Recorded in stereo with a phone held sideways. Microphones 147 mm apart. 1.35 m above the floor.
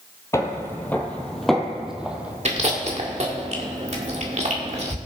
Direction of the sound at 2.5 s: 50° right (ahead or behind).